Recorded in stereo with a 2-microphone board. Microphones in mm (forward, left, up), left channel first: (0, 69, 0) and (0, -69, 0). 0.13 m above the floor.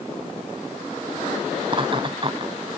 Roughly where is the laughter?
Right.